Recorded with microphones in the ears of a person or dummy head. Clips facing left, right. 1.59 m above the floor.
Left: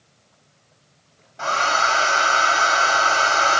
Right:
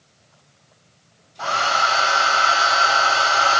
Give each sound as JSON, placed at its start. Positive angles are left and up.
{"t": 1.4, "sound": "a hair dryer", "side_deg": 35, "distance_m": 2.5}